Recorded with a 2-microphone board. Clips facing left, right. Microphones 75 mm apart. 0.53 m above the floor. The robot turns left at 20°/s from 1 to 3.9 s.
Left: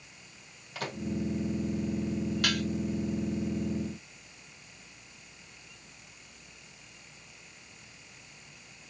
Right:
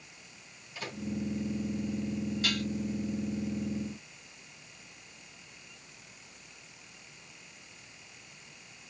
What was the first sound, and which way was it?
A microwave, 65° left (ahead or behind).